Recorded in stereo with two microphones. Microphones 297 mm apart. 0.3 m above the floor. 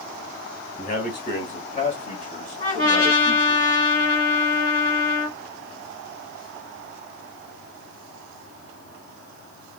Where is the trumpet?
25° left (ahead or behind), 2.5 m.